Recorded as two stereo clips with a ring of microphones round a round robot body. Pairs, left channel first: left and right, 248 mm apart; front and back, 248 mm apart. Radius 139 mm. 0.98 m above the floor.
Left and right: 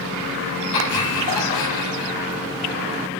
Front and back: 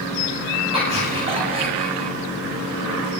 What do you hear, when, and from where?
0.7 s laughter: 110° left, 9 m